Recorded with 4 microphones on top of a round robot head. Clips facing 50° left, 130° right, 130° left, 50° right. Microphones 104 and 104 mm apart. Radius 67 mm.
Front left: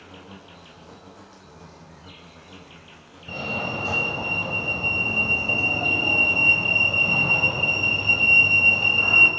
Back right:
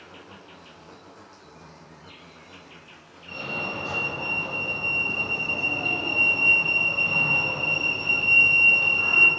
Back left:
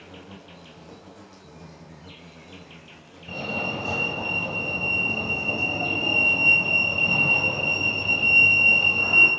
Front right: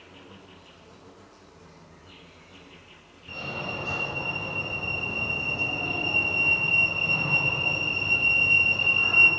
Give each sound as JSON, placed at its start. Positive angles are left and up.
{"t": 0.0, "sound": "an insect", "azimuth_deg": 130, "distance_m": 6.0}
{"t": 3.3, "sound": "a fire alarm", "azimuth_deg": 90, "distance_m": 7.5}